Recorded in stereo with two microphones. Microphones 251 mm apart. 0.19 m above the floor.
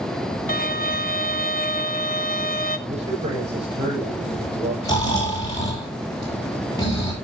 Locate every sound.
0.5 s a violin: 35° left (ahead or behind), 0.8 m
2.9 s a man speaking: 25° right (ahead or behind), 7.5 m
4.8 s snoring: 15° left (ahead or behind), 6 m